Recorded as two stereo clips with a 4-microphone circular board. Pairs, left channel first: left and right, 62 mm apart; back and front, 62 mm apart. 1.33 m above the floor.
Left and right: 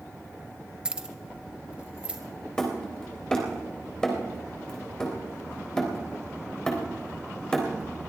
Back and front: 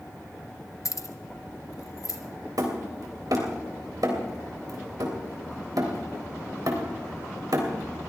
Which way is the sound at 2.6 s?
10° left.